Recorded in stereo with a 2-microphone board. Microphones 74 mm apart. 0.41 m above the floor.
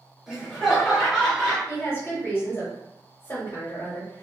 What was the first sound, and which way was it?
Laughter, 5° right (ahead or behind).